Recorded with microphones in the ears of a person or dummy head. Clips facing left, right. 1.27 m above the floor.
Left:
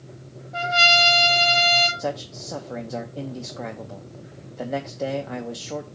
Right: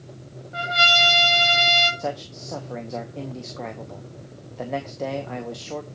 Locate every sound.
0.5 s a trumpet: 20° right (ahead or behind), 2.5 m
2.0 s a man speaking: centre (ahead or behind), 0.7 m